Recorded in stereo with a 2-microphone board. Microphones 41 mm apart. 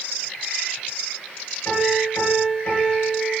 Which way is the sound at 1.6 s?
70° left (ahead or behind).